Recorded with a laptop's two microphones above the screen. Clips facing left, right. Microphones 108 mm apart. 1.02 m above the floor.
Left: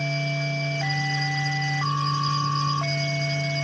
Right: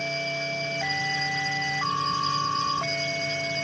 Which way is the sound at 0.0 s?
35° right (ahead or behind).